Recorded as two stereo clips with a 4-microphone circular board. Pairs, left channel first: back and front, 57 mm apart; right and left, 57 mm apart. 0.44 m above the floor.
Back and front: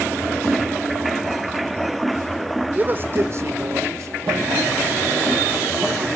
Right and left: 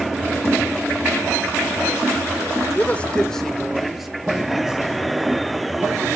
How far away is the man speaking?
About 1.1 m.